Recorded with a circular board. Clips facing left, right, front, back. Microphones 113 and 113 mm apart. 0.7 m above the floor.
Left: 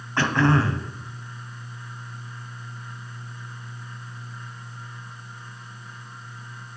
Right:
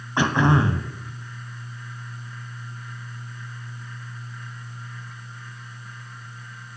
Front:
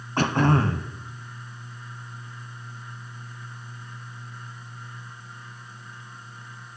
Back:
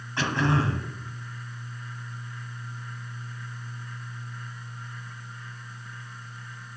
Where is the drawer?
No drawer in this recording.